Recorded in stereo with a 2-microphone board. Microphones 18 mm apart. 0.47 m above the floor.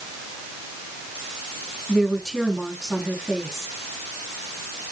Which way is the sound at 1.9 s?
20° left (ahead or behind).